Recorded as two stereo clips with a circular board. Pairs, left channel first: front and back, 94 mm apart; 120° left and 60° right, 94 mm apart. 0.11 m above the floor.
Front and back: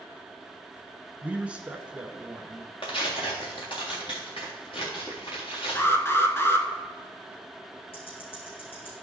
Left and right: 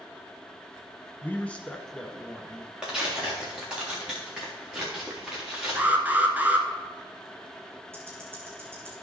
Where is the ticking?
5° left, 4.5 m.